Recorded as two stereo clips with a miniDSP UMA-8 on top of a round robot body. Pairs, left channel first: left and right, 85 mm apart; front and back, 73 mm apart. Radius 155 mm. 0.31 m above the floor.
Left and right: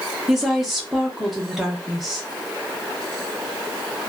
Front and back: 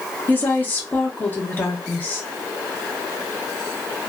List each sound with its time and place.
0.3 s a woman speaking: 5° right, 1.1 m